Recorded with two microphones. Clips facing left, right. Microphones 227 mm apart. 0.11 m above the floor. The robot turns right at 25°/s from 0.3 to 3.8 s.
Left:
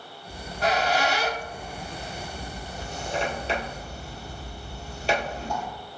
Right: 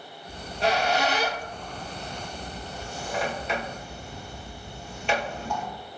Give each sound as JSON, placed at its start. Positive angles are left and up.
{"t": 0.3, "sound": "a squeak", "side_deg": -35, "distance_m": 1.1}